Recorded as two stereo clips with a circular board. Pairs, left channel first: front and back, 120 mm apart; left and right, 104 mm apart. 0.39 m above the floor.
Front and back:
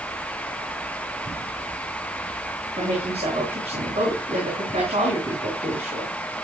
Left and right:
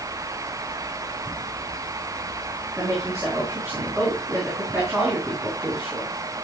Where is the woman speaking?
155° right, 4.5 m.